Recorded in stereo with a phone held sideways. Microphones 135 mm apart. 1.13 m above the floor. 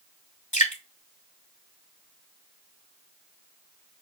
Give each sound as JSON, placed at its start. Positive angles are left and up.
{"t": 0.5, "sound": "dripping", "side_deg": 70, "distance_m": 3.0}